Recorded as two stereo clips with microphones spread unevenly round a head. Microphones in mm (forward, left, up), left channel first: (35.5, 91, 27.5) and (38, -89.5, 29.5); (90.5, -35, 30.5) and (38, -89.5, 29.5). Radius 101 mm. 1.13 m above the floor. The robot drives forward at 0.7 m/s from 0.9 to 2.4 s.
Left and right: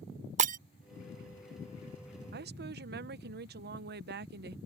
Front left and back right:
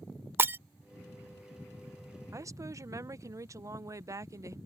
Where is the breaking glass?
95° right.